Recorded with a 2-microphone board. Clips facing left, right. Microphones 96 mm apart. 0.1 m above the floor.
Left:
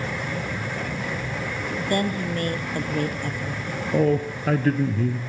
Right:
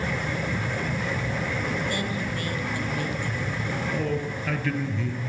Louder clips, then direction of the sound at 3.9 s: Left 11 dB; 40° left (ahead or behind).